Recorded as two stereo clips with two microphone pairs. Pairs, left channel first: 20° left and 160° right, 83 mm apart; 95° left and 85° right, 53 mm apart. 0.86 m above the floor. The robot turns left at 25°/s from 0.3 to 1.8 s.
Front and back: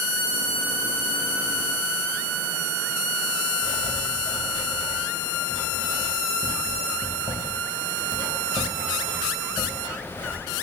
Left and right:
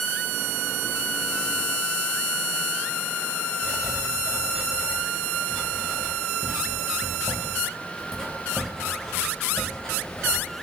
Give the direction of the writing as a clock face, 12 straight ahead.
11 o'clock.